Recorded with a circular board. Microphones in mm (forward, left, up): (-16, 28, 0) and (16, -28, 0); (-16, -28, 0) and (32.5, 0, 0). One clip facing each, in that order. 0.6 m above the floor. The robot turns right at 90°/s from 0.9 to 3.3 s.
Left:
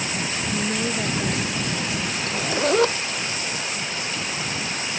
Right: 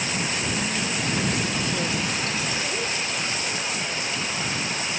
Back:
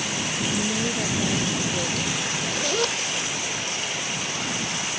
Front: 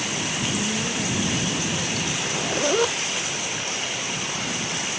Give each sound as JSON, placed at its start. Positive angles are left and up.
{"t": 0.5, "sound": "a woman speaking", "azimuth_deg": 150}
{"t": 2.2, "sound": "a zipper", "azimuth_deg": 55}